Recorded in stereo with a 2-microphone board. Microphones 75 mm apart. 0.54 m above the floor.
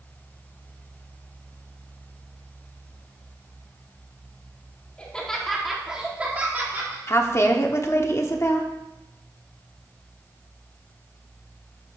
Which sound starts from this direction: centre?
Laughter, at 5.0 s.